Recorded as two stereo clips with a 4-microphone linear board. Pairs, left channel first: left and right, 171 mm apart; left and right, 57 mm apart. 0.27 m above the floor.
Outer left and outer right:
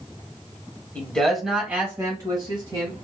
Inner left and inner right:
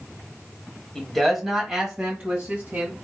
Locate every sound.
0.9 s a man speaking: 10° left (ahead or behind), 1.2 m; by 3.0 s 40° right (ahead or behind), 1.5 m